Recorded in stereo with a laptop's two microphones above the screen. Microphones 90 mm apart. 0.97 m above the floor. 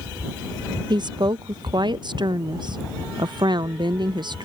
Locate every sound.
0.9 s a woman speaking: 60° right (ahead or behind)